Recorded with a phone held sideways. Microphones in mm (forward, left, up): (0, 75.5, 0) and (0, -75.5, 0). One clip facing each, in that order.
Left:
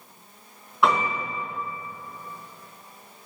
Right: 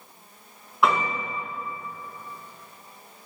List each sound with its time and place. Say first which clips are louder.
0.8 s a piano: left 1 dB; centre (ahead or behind), 4 m